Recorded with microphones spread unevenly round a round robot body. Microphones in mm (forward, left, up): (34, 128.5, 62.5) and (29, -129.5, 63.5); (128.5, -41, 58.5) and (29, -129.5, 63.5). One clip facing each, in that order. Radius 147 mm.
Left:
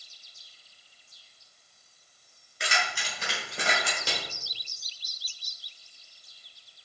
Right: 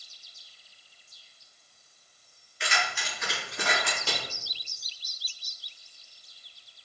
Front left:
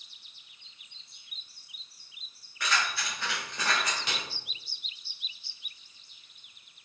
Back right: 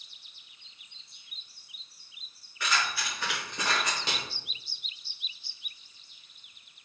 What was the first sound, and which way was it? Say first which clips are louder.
Keys jangling: even, even; 135° left.